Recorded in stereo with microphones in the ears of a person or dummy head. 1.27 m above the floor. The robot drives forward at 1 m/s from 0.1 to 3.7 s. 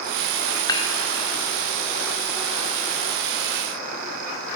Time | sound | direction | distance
0.7 | dishes clattering | 20° left (ahead or behind) | 2.5 m